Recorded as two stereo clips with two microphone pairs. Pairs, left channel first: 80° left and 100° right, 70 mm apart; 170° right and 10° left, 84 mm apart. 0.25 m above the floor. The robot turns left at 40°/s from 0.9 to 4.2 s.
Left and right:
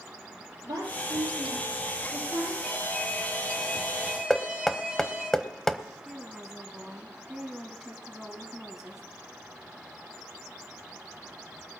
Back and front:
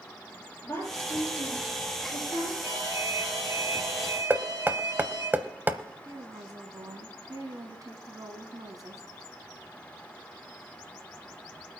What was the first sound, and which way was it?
A woman speaking, 115° right.